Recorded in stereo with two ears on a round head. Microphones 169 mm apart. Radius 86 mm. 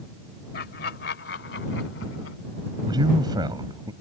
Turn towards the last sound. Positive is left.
turn(degrees=-25)  # may be behind; listen again after turning